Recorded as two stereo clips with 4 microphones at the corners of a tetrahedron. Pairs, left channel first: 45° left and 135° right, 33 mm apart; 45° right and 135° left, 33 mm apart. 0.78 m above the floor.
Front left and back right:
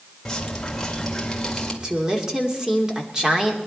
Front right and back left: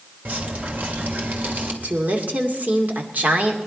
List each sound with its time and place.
0.2 s dripping: 120° left, 2.5 m
1.8 s a woman speaking: 155° left, 2.5 m